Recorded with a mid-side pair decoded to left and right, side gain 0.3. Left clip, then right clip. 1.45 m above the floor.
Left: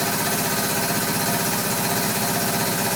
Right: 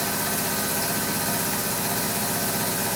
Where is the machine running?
50° left, 1.5 m.